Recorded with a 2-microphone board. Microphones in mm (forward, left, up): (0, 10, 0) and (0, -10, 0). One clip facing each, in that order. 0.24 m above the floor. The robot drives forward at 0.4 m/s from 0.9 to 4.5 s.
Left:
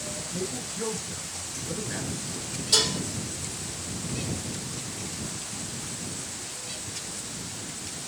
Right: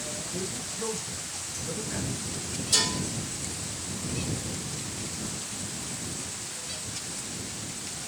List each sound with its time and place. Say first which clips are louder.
0.3 s a man speaking: left 1 dB; 50° left (ahead or behind), 3.5 m; by 2.5 s 45° left (ahead or behind), 3.5 m
2.7 s dishes clattering: left 2 dB; 30° left (ahead or behind), 5.5 m